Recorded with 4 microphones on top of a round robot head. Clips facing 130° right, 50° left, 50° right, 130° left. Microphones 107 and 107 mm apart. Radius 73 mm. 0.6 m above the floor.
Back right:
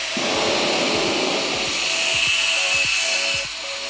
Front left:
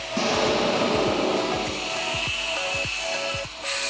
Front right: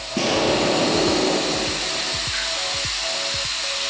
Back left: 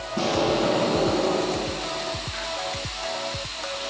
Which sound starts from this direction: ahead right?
An explosion, at 0.2 s.